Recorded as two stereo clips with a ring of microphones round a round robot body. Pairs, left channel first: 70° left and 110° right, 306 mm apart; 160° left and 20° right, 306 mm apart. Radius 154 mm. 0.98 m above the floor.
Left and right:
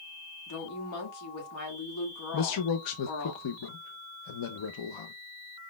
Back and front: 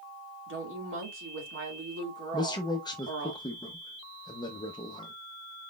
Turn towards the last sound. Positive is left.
turn(degrees=80)